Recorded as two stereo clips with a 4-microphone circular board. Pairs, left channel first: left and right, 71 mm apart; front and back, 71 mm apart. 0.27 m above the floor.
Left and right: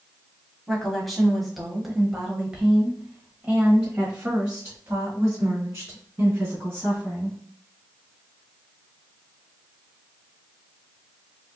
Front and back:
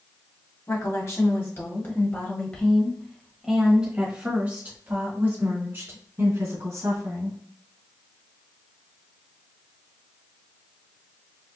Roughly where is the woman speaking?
Ahead.